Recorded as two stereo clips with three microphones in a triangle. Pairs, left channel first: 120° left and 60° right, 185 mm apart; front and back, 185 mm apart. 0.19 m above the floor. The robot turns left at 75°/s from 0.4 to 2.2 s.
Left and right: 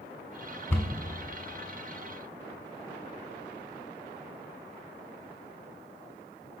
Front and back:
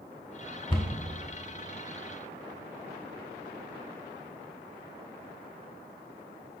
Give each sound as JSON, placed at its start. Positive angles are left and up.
{"t": 0.7, "sound": "a cupboard door", "azimuth_deg": 50, "distance_m": 0.7}